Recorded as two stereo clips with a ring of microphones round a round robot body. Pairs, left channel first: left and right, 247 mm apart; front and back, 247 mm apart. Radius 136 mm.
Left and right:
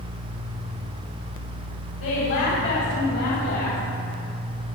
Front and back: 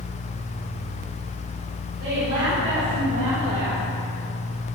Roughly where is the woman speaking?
Left.